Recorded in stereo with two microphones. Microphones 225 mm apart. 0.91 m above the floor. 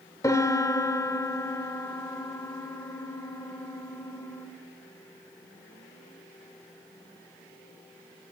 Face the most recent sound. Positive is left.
turn(degrees=15)  # may be behind; listen again after turning